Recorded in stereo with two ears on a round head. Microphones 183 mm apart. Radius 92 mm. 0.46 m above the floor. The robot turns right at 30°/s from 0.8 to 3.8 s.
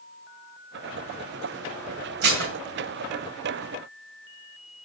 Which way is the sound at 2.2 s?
50° right (ahead or behind).